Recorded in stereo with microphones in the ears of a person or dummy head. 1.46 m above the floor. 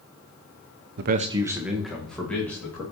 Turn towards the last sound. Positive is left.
turn(degrees=5)  # may be behind; listen again after turning